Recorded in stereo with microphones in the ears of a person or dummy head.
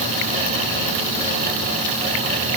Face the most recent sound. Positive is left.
No sound to turn to.